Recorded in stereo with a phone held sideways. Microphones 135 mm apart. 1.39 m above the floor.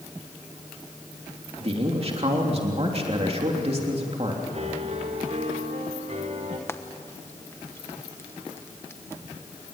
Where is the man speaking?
45° right (ahead or behind), 3 m.